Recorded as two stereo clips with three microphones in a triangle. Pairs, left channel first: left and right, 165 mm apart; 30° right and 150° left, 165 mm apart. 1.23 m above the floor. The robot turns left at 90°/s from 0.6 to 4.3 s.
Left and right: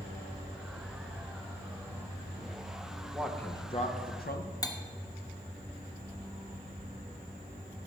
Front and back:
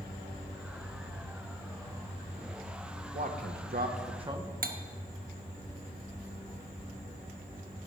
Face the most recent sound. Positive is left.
turn(degrees=150)